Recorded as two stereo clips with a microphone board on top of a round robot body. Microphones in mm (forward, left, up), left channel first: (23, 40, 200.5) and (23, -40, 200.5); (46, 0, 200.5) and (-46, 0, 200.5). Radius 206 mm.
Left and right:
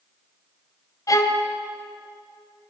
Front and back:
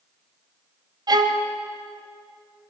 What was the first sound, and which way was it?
A violin, 135° left.